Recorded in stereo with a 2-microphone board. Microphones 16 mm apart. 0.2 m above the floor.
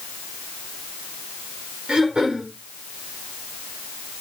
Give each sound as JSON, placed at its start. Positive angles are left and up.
{"t": 1.9, "sound": "throat clearing", "side_deg": -75, "distance_m": 5.5}